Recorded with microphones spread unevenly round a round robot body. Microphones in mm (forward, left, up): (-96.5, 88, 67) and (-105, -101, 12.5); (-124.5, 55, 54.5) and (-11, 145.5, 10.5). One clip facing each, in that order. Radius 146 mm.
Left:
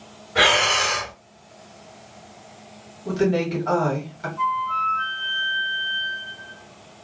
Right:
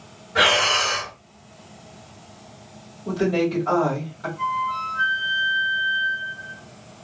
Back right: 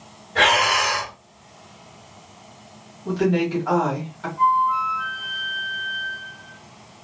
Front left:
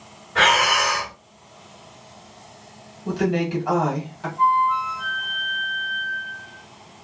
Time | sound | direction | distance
0.3 | breathing | 75° right | 2.0 m
3.0 | a woman speaking | 10° left | 1.5 m
4.4 | a flute | 120° right | 1.2 m